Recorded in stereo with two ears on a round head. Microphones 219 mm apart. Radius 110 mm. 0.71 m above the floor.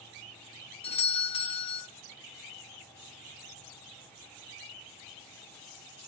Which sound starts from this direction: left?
A doorbell, at 0.8 s.